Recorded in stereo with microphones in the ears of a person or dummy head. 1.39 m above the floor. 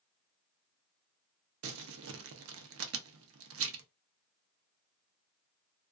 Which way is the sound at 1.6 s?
75° right (ahead or behind).